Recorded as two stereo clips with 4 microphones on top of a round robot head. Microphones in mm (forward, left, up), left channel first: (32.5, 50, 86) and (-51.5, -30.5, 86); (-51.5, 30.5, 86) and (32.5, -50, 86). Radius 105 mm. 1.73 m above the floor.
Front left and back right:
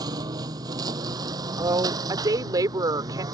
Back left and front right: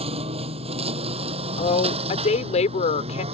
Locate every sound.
0.0 s a lawn mower: 80° right; by 3.3 s 75° right
1.6 s a woman speaking: 165° left